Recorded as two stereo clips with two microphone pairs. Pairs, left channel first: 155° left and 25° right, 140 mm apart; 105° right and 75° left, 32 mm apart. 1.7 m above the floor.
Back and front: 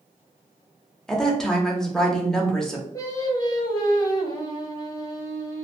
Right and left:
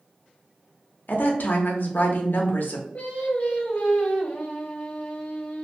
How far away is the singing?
About 0.7 m.